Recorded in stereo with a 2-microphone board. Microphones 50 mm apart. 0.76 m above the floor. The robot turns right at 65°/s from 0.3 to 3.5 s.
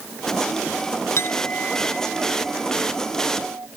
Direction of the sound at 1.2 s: 125° left.